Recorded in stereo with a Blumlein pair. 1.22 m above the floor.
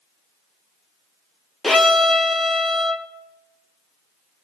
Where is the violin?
10° left, 0.8 m.